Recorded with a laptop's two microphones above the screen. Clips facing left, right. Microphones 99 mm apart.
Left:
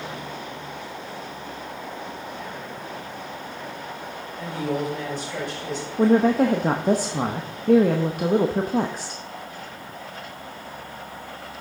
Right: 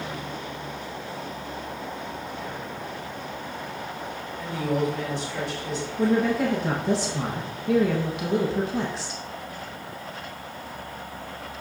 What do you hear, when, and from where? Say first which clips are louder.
4.4 s a woman speaking: right 1 dB; 50° left (ahead or behind), 5 m
6.0 s a woman speaking: left 5 dB; 45° left (ahead or behind), 0.7 m